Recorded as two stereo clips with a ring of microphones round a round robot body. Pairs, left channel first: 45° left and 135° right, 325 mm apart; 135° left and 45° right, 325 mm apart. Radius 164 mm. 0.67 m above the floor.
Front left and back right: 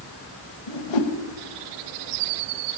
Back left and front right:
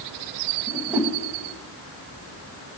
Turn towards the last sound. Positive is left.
turn(degrees=40)